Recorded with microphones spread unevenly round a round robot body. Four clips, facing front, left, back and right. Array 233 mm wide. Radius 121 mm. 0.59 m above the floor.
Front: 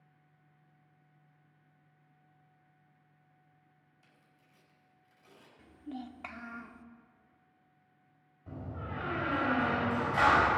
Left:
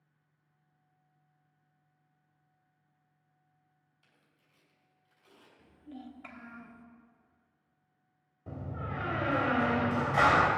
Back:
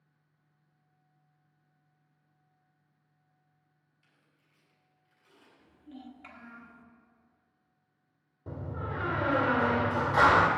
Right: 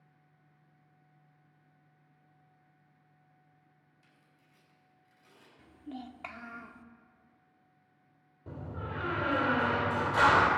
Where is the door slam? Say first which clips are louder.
Left 1 dB, back 4 dB; 160° right, 1.9 m.